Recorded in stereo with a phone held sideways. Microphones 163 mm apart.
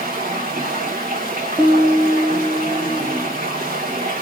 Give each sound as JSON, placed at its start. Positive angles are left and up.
{"t": 0.0, "sound": "running water", "side_deg": -70, "distance_m": 1.3}
{"t": 1.6, "sound": "a piano", "side_deg": -10, "distance_m": 0.7}